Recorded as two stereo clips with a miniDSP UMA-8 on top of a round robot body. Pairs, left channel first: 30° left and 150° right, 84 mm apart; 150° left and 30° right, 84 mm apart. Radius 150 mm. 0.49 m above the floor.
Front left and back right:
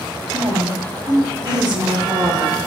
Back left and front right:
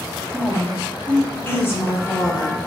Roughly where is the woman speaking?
Right.